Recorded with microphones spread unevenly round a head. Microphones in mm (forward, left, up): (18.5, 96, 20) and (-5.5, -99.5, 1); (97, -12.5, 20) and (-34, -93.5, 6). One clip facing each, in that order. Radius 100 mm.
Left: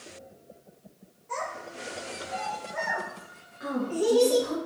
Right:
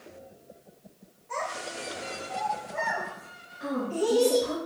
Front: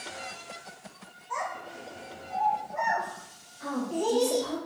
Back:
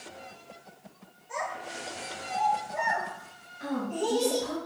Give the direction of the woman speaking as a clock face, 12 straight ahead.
7 o'clock.